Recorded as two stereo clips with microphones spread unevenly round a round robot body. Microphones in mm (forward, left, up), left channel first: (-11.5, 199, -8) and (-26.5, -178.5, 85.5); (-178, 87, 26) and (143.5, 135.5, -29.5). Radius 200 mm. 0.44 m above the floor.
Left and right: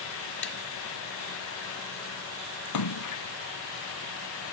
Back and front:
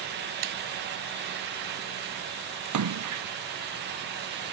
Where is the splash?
40° left.